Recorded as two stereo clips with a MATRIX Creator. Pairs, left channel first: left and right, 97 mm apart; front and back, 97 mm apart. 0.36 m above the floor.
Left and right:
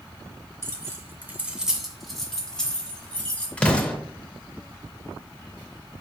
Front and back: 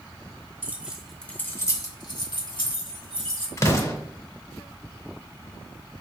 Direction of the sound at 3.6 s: 20° left.